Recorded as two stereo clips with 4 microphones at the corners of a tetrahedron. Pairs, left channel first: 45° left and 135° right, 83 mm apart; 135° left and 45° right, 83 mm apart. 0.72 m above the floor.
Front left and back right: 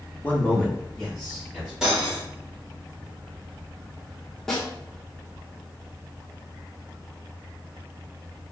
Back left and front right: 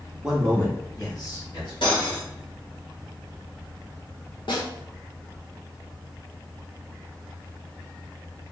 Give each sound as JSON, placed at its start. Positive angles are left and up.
{"t": 0.2, "sound": "a man speaking", "azimuth_deg": 15, "distance_m": 0.9}
{"t": 1.8, "sound": "cutlery clinking", "azimuth_deg": 145, "distance_m": 1.5}
{"t": 4.5, "sound": "a snare drum", "azimuth_deg": 130, "distance_m": 1.0}